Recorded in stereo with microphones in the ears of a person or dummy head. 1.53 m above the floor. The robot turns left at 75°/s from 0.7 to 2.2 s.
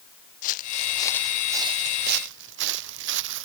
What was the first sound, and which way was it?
Footsteps, 45° left (ahead or behind).